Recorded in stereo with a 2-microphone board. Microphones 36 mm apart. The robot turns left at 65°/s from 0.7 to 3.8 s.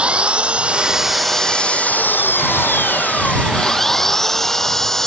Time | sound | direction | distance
0.0 | an engine running | 150° right | ?